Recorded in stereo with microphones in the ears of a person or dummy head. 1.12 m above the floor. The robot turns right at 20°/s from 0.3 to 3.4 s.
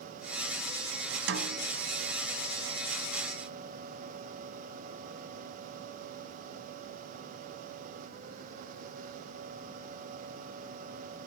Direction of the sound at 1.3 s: 75° right (ahead or behind).